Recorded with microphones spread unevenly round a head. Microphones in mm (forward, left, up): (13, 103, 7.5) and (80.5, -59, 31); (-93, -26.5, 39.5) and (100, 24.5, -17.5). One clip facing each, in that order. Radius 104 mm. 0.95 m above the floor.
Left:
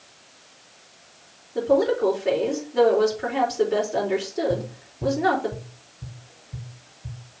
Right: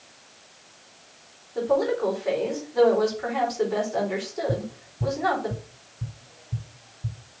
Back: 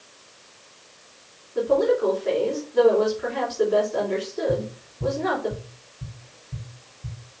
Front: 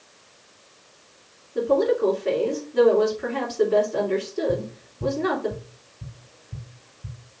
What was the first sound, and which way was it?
A woman speaking, 55° left.